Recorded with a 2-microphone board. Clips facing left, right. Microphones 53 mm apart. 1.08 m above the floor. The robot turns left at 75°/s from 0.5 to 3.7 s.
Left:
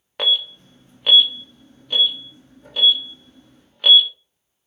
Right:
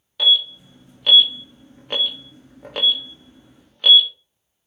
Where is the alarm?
55° left (ahead or behind), 1.0 m; by 4.1 s 5° left (ahead or behind), 1.0 m.